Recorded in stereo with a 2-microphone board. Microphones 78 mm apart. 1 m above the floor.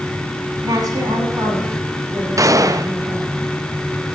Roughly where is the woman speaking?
Right.